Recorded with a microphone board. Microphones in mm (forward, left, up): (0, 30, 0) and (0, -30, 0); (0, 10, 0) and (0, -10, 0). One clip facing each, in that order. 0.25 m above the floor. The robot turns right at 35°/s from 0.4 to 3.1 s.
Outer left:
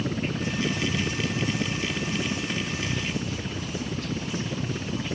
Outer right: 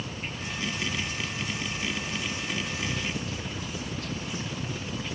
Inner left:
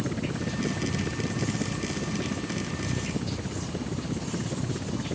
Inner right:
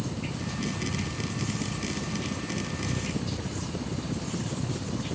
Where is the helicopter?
65° left (ahead or behind); by 5.2 s 25° left (ahead or behind).